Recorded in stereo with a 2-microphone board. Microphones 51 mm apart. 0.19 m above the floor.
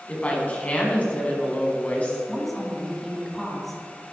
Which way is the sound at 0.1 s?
30° left (ahead or behind).